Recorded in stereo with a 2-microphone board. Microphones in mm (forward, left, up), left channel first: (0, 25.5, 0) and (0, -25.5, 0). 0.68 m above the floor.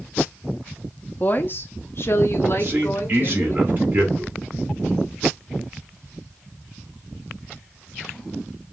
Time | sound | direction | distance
1.2 | a woman speaking | 35° left (ahead or behind) | 0.7 m
2.6 | a man speaking | 45° right (ahead or behind) | 2 m